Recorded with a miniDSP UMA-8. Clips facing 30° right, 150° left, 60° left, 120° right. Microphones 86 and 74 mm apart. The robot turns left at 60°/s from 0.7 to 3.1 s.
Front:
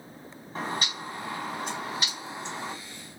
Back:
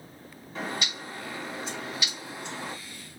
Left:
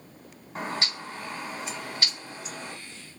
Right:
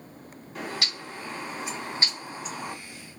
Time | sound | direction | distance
0.6 | a bird | 15° left | 2.5 m